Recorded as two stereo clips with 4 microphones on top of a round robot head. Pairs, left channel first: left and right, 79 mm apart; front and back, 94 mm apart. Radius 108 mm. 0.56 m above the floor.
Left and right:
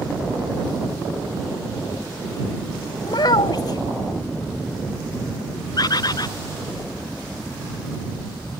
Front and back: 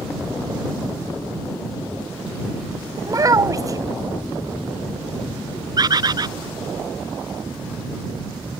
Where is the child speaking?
130° left.